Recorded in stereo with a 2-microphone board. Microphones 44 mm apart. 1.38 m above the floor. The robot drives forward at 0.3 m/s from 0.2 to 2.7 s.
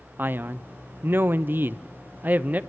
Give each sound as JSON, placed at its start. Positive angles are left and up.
{"t": 0.2, "sound": "a man speaking", "side_deg": -45, "distance_m": 0.7}